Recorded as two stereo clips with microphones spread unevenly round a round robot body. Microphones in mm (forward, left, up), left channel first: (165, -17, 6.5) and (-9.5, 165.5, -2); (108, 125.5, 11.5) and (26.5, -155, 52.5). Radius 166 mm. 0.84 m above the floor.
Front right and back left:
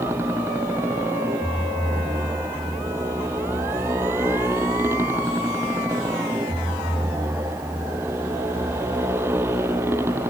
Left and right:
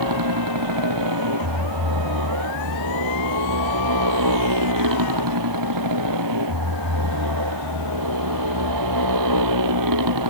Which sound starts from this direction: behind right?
A motorcycle, at 0.0 s.